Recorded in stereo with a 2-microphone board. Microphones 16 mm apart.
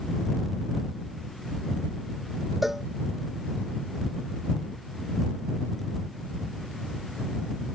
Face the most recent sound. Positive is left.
turn(degrees=-15)  # may be behind; listen again after turning